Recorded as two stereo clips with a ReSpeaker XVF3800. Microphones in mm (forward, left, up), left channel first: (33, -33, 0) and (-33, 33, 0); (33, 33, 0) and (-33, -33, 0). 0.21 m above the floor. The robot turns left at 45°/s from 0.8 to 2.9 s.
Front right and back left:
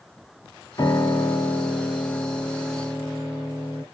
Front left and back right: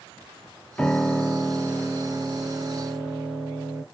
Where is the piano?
25° right, 0.6 m; by 3.8 s 120° right, 0.6 m.